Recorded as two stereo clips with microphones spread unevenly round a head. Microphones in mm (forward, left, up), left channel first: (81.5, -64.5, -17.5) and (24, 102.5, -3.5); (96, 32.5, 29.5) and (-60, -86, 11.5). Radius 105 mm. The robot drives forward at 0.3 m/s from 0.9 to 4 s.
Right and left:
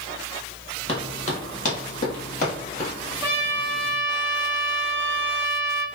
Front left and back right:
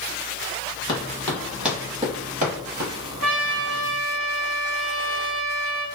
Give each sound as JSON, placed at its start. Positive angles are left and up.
{"t": 0.9, "sound": "running footsteps", "azimuth_deg": -20, "distance_m": 1.8}
{"t": 3.2, "sound": "a trumpet", "azimuth_deg": -175, "distance_m": 0.7}